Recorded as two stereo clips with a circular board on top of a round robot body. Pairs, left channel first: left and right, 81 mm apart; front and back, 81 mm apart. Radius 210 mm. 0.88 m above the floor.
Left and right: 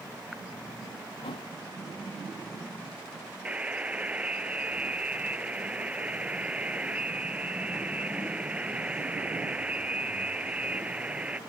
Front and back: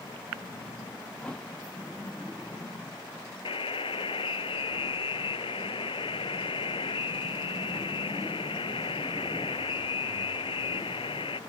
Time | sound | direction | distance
1.2 | a thud | 80° left | ?
3.5 | a buzzer | 15° right | ?